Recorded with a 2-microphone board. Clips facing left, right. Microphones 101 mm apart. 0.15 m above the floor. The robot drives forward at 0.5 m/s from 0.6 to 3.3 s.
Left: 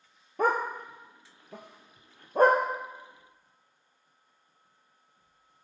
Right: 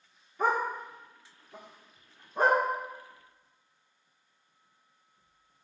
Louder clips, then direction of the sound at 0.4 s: Left 1 dB; 65° left (ahead or behind).